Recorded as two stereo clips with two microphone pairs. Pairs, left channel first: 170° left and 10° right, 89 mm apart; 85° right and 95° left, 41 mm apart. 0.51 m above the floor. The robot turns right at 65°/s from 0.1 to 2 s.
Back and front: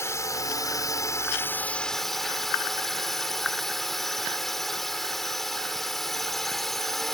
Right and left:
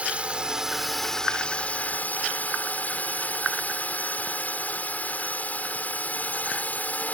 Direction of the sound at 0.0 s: 135° left.